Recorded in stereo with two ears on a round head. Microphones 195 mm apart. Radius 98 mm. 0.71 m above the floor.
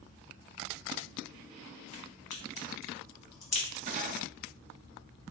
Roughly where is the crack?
Left.